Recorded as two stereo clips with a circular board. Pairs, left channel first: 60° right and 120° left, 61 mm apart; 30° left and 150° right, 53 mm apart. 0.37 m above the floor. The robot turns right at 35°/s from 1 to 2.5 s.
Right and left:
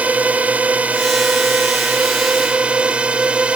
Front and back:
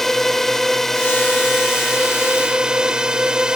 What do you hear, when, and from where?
0.0 s a drone: 105° left; by 3.6 s 160° left